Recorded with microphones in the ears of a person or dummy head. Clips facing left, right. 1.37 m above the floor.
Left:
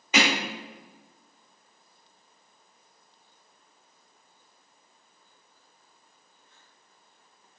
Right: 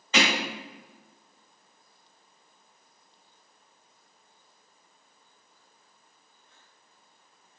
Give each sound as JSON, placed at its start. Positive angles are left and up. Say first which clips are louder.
{"t": 0.1, "sound": "hammering", "louder": "left 1 dB", "side_deg": 15, "distance_m": 1.6}